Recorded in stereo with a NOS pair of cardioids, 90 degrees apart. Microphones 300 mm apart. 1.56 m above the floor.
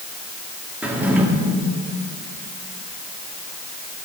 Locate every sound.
0.8 s a drawer: 5° right, 2 m